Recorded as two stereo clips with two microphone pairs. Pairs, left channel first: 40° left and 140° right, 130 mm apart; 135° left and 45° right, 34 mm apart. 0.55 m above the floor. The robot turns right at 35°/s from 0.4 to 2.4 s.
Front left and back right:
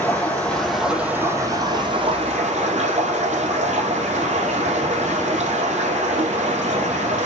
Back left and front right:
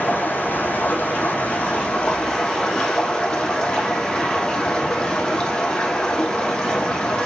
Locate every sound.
0.0 s running water: 120° left, 4 m; by 7.3 s 170° right, 4 m